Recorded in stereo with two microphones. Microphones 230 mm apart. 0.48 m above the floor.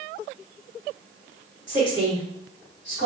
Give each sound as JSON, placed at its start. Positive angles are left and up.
{"t": 1.7, "sound": "a woman speaking", "side_deg": 55, "distance_m": 1.9}